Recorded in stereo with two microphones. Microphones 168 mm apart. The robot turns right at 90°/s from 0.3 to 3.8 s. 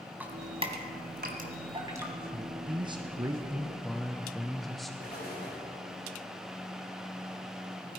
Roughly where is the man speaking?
Right.